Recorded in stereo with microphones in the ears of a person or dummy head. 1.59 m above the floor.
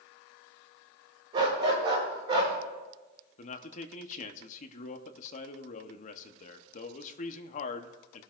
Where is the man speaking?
45° left (ahead or behind), 0.9 m.